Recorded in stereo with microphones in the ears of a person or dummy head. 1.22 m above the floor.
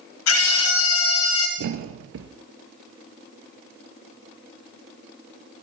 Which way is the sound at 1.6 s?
70° right (ahead or behind).